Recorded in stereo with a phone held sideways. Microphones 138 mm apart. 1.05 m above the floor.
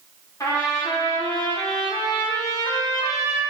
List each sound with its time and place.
0.4 s a trumpet: 25° left (ahead or behind), 3.5 m